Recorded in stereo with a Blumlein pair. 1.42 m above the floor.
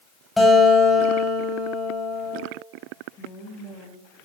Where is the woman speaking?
30° left, 2 m.